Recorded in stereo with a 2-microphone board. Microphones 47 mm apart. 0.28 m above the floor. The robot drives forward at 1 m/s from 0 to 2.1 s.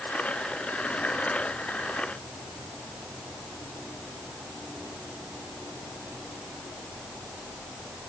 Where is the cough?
I don't hear a cough.